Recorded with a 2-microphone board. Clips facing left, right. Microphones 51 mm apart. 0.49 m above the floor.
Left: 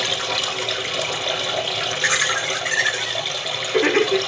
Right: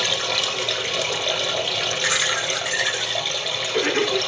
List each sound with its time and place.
0.0 s running water: 10° left (ahead or behind), 1.5 m
2.0 s laughter: 40° left (ahead or behind), 1.7 m